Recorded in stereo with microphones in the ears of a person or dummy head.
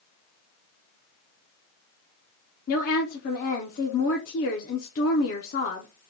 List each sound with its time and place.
2.7 s a woman speaking: 45° left (ahead or behind), 0.6 m